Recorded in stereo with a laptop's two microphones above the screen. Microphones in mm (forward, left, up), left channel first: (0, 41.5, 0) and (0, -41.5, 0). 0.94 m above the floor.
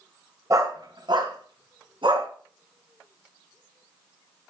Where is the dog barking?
40° right (ahead or behind), 1.3 m; by 2.3 s 80° right, 3.5 m.